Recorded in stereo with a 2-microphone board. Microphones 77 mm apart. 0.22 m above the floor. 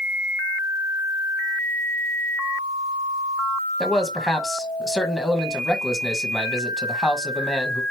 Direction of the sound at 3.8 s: 5° left (ahead or behind).